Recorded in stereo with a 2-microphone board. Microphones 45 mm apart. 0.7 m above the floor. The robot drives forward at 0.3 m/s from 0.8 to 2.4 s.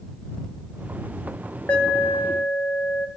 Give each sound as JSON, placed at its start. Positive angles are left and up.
{"t": 1.7, "sound": "an alarm", "side_deg": 35, "distance_m": 0.5}